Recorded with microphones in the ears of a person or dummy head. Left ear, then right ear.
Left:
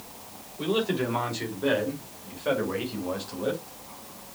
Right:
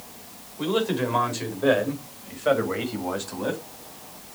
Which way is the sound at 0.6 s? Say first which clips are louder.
Right 2 dB; 10° right (ahead or behind).